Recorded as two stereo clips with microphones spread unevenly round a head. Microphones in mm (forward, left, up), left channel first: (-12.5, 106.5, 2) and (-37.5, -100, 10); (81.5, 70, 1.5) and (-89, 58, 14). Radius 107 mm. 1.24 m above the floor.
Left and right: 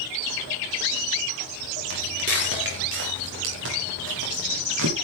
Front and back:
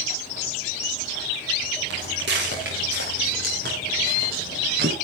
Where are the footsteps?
135° right, 5.5 m; by 5.0 s 120° right, 8 m.